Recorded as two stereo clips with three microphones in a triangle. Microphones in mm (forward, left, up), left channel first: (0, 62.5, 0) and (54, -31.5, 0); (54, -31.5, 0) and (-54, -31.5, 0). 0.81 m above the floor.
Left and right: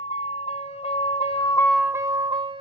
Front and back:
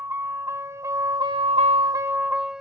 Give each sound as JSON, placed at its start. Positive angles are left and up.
{"t": 0.0, "sound": "a vehicle", "azimuth_deg": 110}